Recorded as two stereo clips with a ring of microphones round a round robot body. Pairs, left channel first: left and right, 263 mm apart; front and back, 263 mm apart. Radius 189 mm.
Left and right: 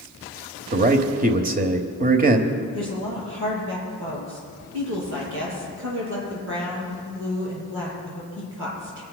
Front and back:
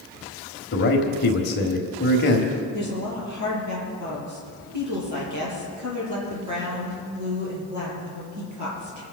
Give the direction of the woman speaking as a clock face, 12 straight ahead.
5 o'clock.